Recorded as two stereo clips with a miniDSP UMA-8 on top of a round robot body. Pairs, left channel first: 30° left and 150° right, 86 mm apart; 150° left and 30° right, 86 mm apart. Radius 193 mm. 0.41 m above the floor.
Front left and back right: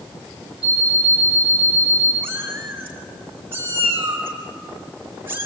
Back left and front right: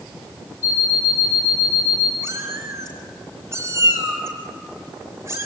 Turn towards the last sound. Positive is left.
turn(degrees=-85)